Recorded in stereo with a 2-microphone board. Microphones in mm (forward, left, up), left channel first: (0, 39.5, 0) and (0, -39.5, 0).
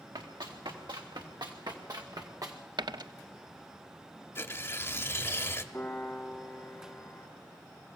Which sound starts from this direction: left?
Tearing paper, at 4.3 s.